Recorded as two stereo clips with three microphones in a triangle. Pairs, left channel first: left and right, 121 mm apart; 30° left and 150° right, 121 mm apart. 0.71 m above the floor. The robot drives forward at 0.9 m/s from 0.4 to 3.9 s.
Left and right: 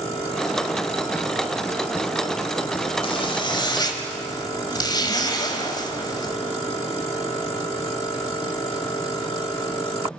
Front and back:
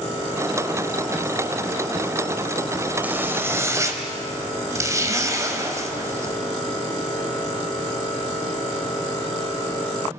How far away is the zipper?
About 2 m.